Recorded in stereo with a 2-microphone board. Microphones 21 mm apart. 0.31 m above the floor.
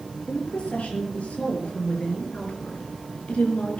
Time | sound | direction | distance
0.3 | a woman speaking | 75° left (ahead or behind) | 6.5 m